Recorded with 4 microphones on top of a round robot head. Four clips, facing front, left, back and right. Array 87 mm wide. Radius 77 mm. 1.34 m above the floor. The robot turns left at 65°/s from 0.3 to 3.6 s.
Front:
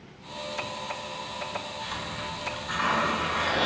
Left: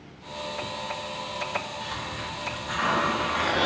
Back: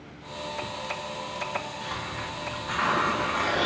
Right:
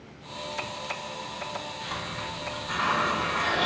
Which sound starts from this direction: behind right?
A hiss, at 1.8 s.